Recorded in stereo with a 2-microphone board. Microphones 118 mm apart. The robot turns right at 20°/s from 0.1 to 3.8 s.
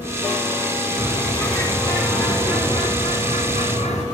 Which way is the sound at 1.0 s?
20° left.